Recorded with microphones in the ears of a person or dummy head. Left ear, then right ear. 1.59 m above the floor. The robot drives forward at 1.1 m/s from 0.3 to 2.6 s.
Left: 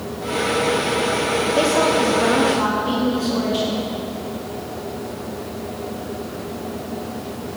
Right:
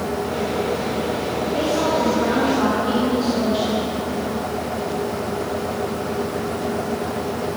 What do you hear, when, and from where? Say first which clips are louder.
1.6 s a woman speaking: left 2 dB; 40° left (ahead or behind), 1.2 m; by 3.8 s 20° left (ahead or behind), 2 m